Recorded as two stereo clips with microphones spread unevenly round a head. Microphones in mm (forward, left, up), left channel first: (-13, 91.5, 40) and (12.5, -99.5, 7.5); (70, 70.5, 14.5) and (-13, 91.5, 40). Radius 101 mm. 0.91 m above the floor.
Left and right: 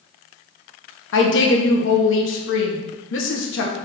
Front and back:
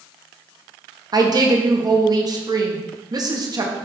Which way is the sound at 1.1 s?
120° left.